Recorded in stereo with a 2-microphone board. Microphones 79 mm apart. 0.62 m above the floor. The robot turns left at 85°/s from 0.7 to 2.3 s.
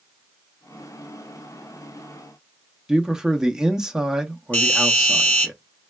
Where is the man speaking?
10° right (ahead or behind), 0.5 m.